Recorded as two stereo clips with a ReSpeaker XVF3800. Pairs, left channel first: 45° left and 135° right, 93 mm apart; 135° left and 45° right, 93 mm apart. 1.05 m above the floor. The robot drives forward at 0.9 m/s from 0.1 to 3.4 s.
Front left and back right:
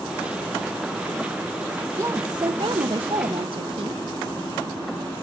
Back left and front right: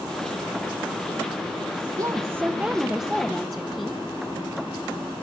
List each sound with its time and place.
2.0 s a woman speaking: 80° right, 1.0 m; by 4.0 s 145° right, 1.5 m